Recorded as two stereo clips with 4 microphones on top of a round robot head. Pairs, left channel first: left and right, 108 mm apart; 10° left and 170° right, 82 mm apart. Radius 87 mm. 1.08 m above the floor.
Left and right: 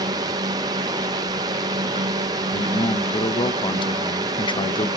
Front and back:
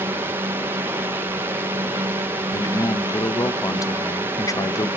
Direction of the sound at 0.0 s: 120° right.